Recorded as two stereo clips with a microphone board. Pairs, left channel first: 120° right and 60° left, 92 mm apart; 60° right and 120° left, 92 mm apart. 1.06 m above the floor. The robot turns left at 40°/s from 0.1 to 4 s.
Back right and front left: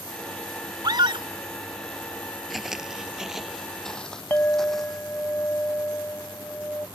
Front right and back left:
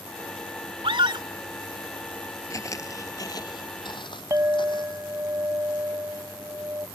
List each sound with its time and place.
0.8 s a scream: 100° left; by 1.3 s 85° left
2.5 s footsteps: 30° right
4.3 s a clink: 175° left